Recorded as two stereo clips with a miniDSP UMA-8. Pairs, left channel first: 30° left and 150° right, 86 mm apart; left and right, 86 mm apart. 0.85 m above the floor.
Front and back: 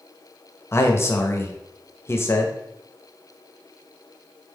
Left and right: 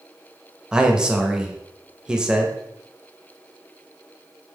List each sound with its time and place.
0.7 s a man speaking: 15° right, 0.7 m